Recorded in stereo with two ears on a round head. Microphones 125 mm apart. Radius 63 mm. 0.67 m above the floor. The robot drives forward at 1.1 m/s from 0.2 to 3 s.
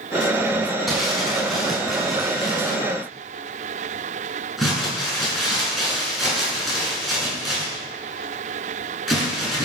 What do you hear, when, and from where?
0.9 s crumpling: centre (ahead or behind), 6 m